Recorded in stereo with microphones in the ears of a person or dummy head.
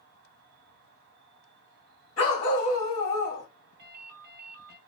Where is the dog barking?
35° left (ahead or behind), 1.4 m.